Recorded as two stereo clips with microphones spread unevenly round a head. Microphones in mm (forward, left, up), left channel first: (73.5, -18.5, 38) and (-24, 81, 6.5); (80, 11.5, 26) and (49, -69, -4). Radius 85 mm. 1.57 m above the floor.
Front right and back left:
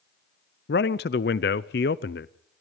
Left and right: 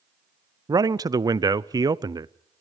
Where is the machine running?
No machine running in this recording.